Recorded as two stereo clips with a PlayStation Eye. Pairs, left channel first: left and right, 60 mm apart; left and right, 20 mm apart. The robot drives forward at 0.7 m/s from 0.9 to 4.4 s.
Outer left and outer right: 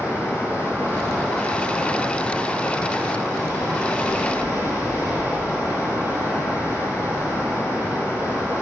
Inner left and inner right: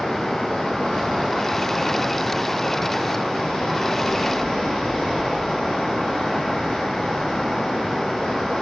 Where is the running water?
55° left (ahead or behind), 3 m; by 8.6 s 75° left (ahead or behind), 2.5 m.